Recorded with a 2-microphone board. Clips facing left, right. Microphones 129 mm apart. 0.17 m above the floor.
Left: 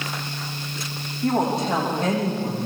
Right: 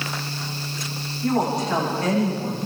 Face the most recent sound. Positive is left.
turn(degrees=25)  # may be behind; listen again after turning